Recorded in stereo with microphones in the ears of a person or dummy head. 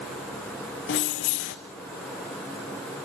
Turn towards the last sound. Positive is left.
turn(degrees=45)  # may be behind; listen again after turning